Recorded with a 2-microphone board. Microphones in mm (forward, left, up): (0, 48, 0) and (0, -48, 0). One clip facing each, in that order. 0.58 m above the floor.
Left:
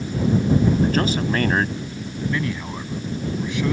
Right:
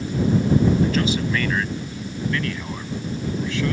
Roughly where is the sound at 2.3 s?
Centre.